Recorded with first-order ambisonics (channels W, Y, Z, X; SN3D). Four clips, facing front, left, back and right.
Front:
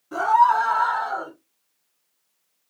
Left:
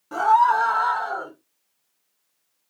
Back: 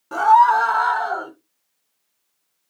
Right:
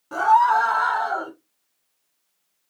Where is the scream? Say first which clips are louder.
Right 1 dB, back 4 dB; 175° right, 1.4 m; by 1.3 s 135° right, 1.4 m.